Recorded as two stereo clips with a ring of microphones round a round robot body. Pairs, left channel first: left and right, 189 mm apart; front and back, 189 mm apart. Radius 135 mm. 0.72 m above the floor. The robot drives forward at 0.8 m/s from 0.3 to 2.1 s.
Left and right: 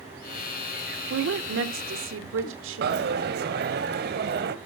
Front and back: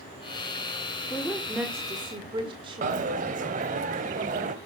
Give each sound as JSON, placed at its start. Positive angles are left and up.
{"t": 1.1, "sound": "a woman speaking", "azimuth_deg": -80, "distance_m": 1.7}
{"t": 2.8, "sound": "a dropped coin", "azimuth_deg": -125, "distance_m": 0.7}